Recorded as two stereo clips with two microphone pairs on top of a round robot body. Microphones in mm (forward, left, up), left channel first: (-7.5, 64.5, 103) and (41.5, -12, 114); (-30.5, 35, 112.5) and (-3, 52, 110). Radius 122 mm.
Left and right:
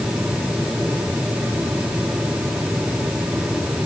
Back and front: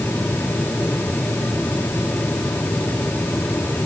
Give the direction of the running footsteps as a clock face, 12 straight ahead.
No running footsteps in this recording.